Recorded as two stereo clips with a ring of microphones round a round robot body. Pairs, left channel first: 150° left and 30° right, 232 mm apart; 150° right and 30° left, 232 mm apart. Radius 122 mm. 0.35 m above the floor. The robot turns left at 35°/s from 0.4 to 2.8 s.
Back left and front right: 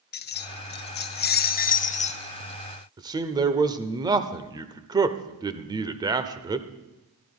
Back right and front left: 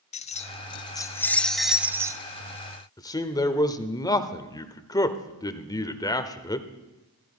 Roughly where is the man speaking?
Right.